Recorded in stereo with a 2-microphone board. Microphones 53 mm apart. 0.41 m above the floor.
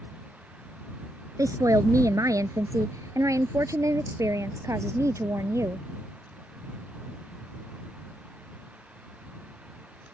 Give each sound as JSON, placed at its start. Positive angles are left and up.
{"t": 1.4, "sound": "a woman speaking", "side_deg": -75}